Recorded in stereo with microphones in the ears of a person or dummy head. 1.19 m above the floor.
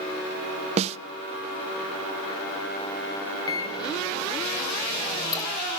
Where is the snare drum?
30° right (ahead or behind), 0.6 m.